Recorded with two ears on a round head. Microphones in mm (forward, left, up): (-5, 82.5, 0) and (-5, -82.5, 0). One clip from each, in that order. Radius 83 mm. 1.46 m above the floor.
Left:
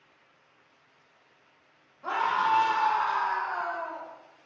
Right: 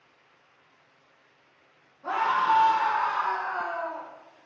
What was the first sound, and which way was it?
A scream, 80° left.